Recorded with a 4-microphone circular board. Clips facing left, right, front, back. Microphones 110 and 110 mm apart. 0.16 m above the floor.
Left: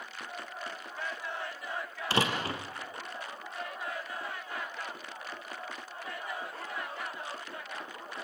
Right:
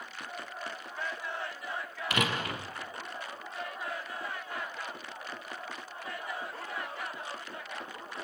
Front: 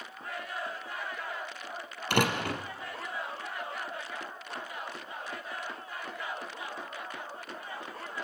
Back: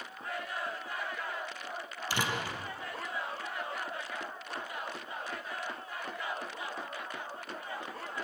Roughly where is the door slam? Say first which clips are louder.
Left 2 dB, front 6 dB; ahead left.